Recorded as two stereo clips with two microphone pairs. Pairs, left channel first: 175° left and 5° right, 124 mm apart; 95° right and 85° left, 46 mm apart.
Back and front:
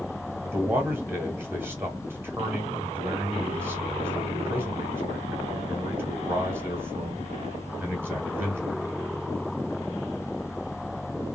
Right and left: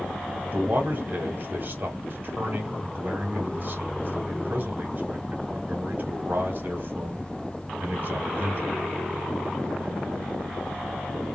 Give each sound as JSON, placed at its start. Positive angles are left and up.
{"t": 0.4, "sound": "a man speaking", "azimuth_deg": 60, "distance_m": 1.3}